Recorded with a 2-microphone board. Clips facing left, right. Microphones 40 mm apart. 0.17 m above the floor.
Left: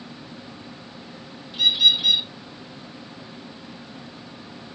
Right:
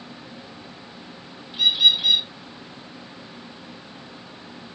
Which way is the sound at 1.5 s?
10° right (ahead or behind).